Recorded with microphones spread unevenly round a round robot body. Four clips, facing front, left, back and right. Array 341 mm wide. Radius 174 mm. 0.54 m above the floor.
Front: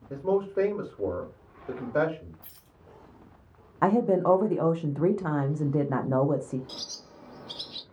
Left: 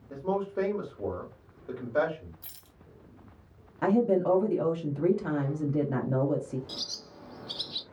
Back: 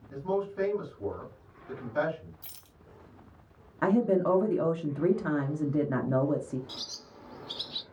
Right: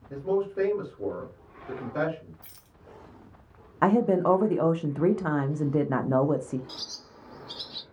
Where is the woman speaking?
65° right, 0.7 m.